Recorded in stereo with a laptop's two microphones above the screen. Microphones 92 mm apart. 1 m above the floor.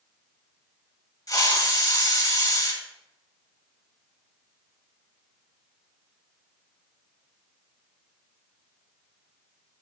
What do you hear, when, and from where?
1.3 s a hiss: 45° left (ahead or behind), 1.7 m